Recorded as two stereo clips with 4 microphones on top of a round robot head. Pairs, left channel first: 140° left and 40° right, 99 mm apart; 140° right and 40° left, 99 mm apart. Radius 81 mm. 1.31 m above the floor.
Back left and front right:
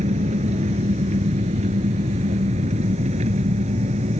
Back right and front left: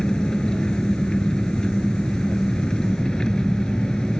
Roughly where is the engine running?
Ahead right.